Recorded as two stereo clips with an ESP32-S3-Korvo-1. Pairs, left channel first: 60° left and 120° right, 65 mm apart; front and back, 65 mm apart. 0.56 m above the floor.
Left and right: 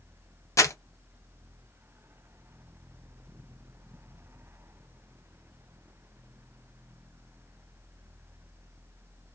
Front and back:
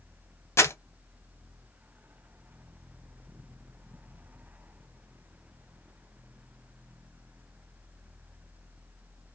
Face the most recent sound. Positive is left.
turn(degrees=35)